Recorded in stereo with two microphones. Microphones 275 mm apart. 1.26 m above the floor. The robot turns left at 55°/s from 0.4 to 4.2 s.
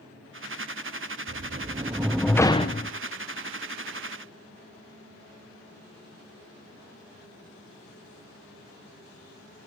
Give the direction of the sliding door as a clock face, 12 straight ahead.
4 o'clock.